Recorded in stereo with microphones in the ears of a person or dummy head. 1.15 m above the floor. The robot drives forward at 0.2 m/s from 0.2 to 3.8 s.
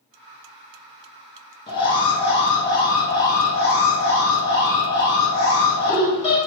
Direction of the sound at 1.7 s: 20° left (ahead or behind).